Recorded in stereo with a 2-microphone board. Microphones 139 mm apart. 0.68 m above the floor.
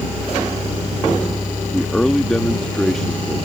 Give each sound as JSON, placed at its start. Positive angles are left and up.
{"t": 1.7, "sound": "a man speaking", "side_deg": 5}